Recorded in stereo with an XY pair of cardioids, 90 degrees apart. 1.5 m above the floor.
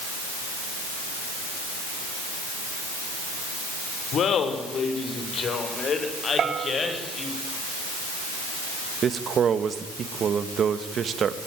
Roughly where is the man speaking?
Ahead right.